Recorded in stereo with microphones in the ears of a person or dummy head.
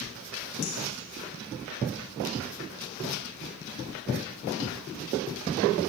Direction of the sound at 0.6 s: 75° left (ahead or behind).